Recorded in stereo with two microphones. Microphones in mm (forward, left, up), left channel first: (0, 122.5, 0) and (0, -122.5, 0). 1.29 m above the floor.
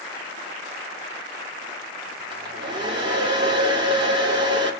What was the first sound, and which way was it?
A hair dryer, 20° right (ahead or behind).